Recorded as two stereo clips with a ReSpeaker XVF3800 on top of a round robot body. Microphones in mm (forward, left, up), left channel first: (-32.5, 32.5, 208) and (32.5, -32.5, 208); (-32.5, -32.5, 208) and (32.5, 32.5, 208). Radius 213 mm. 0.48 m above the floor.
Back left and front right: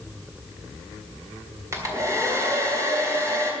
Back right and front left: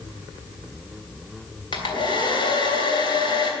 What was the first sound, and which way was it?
A hair dryer, 100° right.